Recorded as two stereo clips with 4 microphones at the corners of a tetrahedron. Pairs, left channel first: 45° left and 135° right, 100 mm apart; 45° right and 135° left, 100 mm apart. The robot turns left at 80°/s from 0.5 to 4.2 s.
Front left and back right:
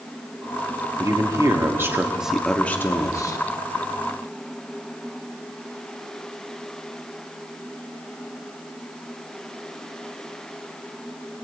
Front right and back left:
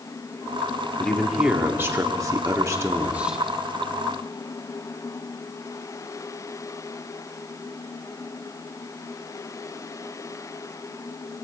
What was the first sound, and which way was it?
A man speaking, 115° right.